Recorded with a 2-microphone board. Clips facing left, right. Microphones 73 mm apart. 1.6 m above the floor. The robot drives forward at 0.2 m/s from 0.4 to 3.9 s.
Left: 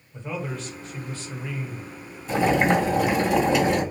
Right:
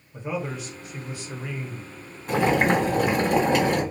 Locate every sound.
0.1 s a man speaking: 15° right (ahead or behind), 1.1 m; by 3.2 s 25° right (ahead or behind), 0.6 m
2.3 s boiling: 55° right (ahead or behind), 1.3 m; by 3.8 s 50° right (ahead or behind), 1.5 m